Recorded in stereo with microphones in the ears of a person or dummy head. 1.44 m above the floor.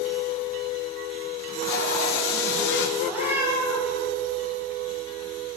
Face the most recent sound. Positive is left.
turn(degrees=-15)  # may be behind; listen again after turning